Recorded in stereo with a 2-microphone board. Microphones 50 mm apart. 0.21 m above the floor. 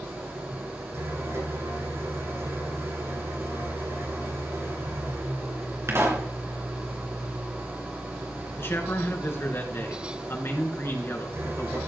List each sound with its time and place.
0.0 s an engine running: 60° right (ahead or behind), 9 m
5.9 s a pop: 60° right (ahead or behind), 3 m
8.6 s a man speaking: 50° left (ahead or behind), 3 m